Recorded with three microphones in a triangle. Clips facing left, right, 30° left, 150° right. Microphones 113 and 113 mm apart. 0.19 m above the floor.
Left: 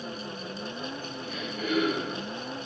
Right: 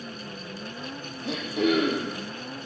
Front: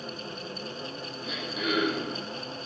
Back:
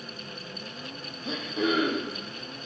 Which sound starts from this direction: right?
Throat clearing, at 1.2 s.